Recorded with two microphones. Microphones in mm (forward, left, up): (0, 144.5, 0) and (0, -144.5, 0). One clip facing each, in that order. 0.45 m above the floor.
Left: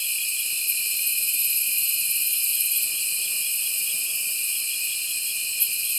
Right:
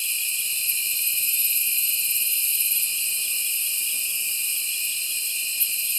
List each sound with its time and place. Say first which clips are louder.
0.0 s an insect: even; 15° left (ahead or behind), 1.0 m